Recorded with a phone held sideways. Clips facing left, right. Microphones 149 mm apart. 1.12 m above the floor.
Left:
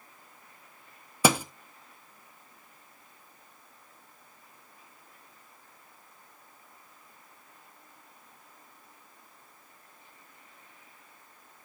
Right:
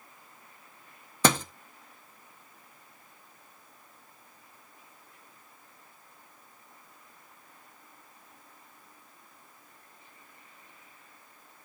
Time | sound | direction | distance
1.2 | a thud | 10° left (ahead or behind) | 0.7 m